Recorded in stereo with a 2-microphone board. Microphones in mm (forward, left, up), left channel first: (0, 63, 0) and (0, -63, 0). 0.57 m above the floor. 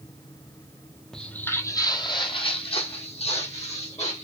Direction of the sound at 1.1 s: 5° left (ahead or behind).